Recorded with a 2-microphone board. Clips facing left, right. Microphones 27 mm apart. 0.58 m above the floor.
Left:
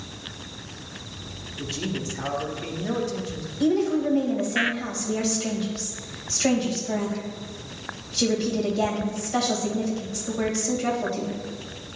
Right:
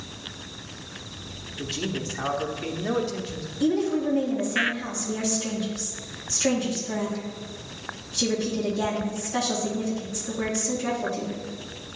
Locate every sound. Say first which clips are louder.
1.6 s a man speaking: even; 20° right (ahead or behind), 0.8 m
3.6 s a woman speaking: left 2 dB; 45° left (ahead or behind), 2.5 m